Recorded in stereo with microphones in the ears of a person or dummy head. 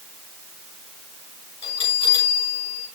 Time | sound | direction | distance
1.6 | a bell | 25° left (ahead or behind) | 4.5 m